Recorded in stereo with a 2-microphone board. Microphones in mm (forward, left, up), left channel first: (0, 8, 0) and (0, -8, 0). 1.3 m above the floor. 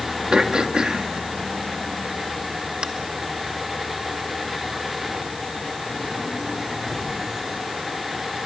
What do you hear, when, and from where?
0.3 s throat clearing: 70° right (ahead or behind), 2 m